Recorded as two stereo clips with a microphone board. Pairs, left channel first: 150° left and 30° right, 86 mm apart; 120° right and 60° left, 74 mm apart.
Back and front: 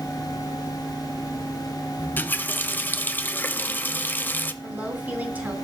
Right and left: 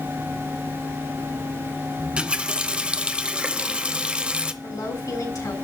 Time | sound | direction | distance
2.0 | a running tap | 115° left | 0.6 m
4.6 | a woman speaking | 95° right | 3 m